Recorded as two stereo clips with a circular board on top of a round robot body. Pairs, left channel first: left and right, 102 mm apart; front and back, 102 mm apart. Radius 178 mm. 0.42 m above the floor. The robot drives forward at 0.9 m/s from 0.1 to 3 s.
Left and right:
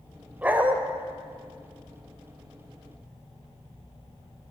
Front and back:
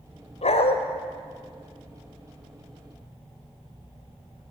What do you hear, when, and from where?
0.4 s a dog barking: 15° right, 1.1 m; by 0.8 s 20° right, 0.9 m